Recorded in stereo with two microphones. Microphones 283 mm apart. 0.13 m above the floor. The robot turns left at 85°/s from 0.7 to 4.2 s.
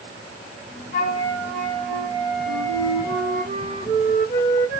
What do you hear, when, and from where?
0.9 s a flute: 5° right, 1.7 m; by 3.5 s 140° left, 1.7 m
2.5 s a flute: 75° right, 1.0 m; by 4.8 s 135° left, 1.0 m